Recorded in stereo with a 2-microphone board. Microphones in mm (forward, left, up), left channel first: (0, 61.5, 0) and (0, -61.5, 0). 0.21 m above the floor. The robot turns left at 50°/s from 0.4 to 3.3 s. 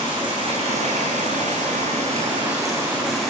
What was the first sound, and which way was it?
Running water, 40° right.